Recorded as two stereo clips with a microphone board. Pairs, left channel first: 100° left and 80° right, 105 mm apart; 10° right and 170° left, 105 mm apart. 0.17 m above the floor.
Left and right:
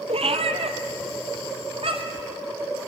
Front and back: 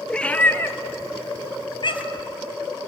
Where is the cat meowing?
95° right, 1.1 m; by 2.3 s 45° right, 1.7 m.